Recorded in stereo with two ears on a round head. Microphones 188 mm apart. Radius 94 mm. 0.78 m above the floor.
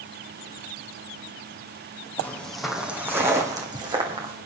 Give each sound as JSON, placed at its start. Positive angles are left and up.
{"t": 2.2, "sound": "footsteps", "side_deg": 10, "distance_m": 2.0}